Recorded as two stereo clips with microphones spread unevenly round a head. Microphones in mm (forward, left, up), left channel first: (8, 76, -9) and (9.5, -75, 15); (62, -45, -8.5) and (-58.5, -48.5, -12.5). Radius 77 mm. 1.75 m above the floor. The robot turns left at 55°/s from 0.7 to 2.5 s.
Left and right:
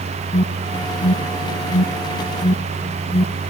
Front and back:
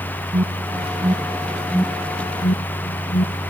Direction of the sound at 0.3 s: 140° left.